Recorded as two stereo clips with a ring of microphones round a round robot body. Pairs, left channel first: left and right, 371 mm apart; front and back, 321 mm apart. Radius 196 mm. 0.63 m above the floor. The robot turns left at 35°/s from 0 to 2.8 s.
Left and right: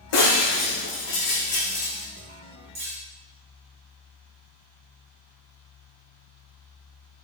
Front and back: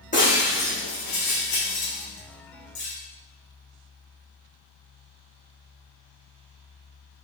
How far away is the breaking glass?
About 4.5 m.